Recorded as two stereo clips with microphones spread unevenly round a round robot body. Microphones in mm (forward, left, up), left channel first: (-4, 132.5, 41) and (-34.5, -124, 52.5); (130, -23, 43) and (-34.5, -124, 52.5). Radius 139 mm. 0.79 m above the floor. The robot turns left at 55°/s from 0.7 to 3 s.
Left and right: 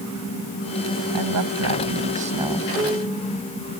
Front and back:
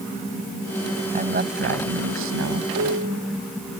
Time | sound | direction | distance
1.1 | a woman speaking | 100° right | ?
2.7 | a piano | 170° right | ?